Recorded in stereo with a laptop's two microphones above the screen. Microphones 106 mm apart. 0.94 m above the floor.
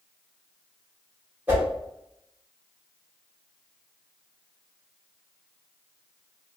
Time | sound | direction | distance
1.5 | a whoosh | 15° right (ahead or behind) | 1.3 m